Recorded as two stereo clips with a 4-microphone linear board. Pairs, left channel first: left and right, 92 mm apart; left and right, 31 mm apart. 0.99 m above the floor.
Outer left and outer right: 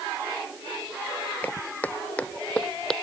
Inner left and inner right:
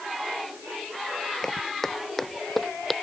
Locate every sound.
1.4 s footsteps: 20° left (ahead or behind); by 2.9 s 10° left (ahead or behind)